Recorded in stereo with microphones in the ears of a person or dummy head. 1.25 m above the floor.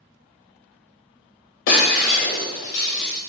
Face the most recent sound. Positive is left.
turn(degrees=35)  # may be behind; listen again after turning